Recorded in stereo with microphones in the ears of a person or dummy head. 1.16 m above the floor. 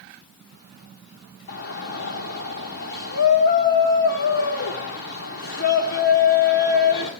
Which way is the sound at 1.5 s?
60° left (ahead or behind).